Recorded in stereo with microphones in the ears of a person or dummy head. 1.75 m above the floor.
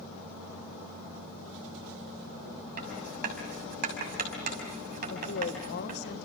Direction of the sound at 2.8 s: 50° right (ahead or behind).